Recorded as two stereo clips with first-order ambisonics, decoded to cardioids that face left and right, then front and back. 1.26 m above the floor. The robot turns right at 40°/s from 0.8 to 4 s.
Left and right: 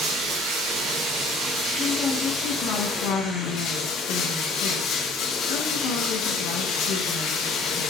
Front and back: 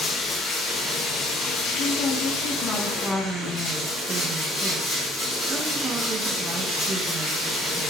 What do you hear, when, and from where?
0.0 s running water: 75° right, 2 m; by 7.9 s 55° left, 2 m
1.8 s a woman speaking: 20° left, 1.9 m; by 7.9 s 110° left, 1.9 m